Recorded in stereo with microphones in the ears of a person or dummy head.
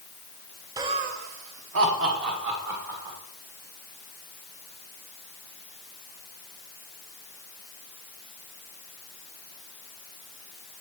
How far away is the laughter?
About 0.6 m.